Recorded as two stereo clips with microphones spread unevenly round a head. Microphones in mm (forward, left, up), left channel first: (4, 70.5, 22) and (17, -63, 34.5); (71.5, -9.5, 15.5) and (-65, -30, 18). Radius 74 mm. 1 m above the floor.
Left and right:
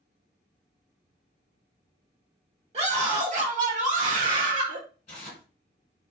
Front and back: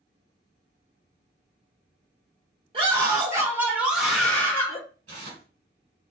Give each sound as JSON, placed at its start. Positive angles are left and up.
{"t": 2.7, "sound": "a scream", "azimuth_deg": -125, "distance_m": 1.3}
{"t": 5.1, "sound": "tearing paper", "azimuth_deg": 145, "distance_m": 1.4}